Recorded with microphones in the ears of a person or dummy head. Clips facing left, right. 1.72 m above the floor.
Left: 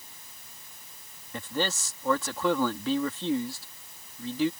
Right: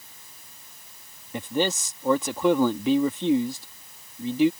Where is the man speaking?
20° right (ahead or behind).